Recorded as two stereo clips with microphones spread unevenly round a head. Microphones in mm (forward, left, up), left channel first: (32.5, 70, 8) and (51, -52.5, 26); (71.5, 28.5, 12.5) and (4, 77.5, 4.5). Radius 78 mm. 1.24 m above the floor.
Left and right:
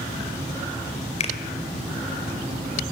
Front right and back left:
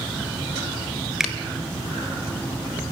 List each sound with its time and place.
1.2 s a finger snap: 60° left, 4 m